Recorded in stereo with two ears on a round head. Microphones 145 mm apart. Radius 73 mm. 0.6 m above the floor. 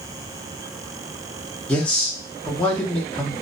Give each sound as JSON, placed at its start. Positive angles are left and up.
{"t": 1.7, "sound": "a man speaking", "side_deg": 10, "distance_m": 0.8}